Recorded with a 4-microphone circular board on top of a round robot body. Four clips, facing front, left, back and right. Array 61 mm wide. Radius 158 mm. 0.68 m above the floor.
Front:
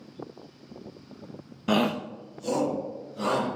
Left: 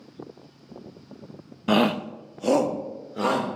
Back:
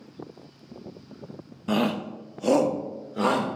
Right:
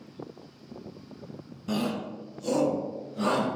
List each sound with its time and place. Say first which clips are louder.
1.7 s a shout: left 9 dB, even; 65° left, 0.6 m; by 3.5 s 145° left, 2.5 m